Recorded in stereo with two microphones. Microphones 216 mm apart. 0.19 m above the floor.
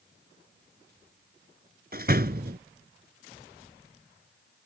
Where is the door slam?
45° right (ahead or behind).